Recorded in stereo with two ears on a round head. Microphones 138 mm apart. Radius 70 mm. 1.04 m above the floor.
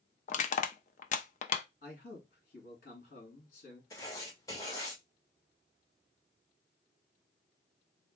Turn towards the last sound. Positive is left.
turn(degrees=20)  # may be behind; listen again after turning